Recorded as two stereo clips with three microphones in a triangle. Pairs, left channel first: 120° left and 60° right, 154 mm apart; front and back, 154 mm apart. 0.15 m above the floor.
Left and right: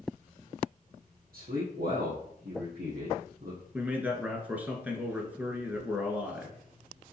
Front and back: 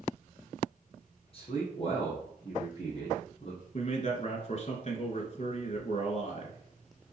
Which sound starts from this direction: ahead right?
A man speaking, at 1.3 s.